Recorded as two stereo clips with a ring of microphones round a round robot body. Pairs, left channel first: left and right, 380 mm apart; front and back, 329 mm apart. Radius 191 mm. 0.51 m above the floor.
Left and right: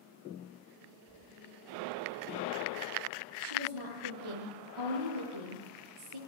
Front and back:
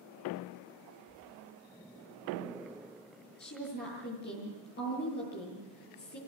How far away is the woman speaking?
About 10 m.